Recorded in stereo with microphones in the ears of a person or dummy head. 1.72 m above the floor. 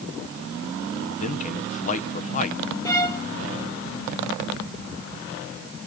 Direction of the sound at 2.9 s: 20° left (ahead or behind).